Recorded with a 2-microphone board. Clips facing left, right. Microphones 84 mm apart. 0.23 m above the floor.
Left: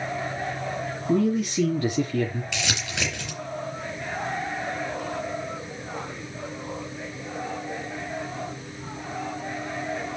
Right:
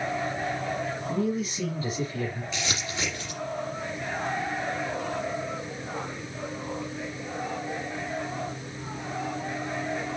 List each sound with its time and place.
1.1 s a man speaking: 70° left (ahead or behind), 3.5 m
2.5 s crumpling: 75° left (ahead or behind), 4.5 m